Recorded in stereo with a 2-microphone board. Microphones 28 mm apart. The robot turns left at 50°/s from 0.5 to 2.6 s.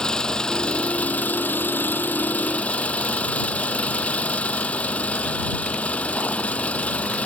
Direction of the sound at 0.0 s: 155° left.